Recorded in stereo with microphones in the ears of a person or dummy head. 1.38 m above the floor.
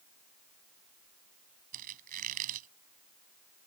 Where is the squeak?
50° right (ahead or behind).